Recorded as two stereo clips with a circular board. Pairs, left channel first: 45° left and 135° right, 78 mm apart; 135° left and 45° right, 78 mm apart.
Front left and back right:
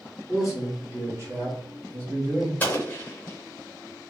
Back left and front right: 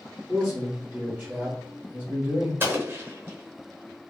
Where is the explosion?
5° right, 0.9 m.